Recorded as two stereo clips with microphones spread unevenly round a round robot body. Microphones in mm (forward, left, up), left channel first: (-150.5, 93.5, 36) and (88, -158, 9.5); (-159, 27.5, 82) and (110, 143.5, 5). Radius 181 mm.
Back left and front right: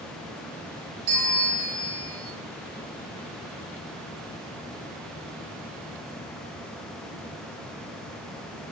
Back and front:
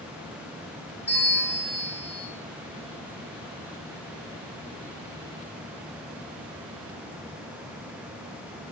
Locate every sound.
1.1 s a bell: 75° right, 1.4 m